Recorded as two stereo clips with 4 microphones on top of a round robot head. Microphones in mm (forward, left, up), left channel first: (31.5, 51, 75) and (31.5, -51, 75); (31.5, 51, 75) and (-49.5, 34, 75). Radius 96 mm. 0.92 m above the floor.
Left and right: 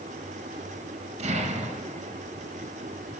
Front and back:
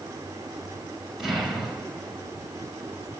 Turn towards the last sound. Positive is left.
turn(degrees=-80)